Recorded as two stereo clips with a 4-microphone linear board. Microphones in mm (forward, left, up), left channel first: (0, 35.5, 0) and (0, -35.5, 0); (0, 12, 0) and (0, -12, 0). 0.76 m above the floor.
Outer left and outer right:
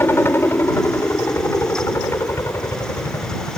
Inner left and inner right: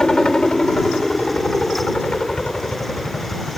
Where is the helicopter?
30° left (ahead or behind); by 3.6 s 40° left (ahead or behind).